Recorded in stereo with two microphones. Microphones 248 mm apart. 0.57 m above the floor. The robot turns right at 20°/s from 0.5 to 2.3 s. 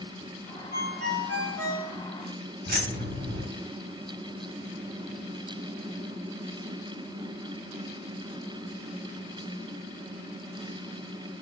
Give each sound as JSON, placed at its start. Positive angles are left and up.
{"t": 0.7, "sound": "a ringtone", "side_deg": -70, "distance_m": 2.5}
{"t": 2.7, "sound": "keys jangling", "side_deg": -40, "distance_m": 1.0}